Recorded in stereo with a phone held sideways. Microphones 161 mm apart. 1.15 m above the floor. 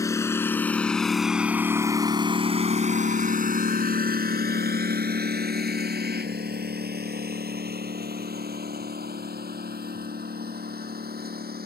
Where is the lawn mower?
20° left (ahead or behind); by 11.7 s 70° right (ahead or behind).